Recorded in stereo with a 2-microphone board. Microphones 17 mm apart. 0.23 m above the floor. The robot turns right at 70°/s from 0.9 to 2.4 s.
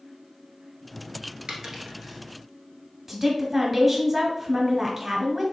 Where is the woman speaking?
15° right (ahead or behind), 1.1 m.